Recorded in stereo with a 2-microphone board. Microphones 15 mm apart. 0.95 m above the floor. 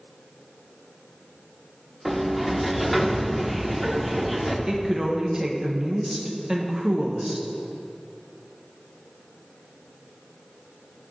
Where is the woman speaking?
40° right (ahead or behind), 0.8 m.